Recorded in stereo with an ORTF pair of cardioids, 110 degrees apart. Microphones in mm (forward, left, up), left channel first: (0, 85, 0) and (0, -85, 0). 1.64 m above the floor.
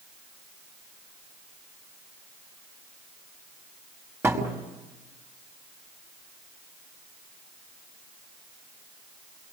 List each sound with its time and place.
4.2 s a thud: 15° right, 5.5 m